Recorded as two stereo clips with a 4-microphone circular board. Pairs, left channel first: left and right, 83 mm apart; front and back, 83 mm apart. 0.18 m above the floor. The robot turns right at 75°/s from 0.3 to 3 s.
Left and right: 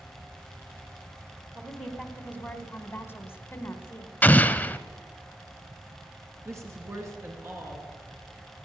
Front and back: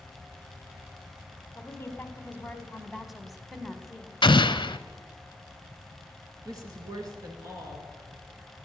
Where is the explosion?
20° left, 0.6 m.